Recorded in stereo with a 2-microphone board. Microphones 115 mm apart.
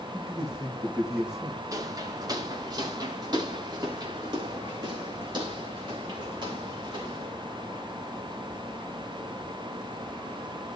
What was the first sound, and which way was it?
A man speaking, 5° right (ahead or behind).